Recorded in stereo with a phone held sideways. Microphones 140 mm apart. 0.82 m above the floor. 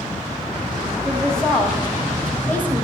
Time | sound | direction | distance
1.1 | a woman speaking | centre (ahead or behind) | 4 m